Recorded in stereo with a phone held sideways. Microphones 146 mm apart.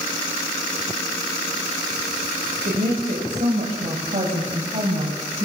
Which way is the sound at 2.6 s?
80° right.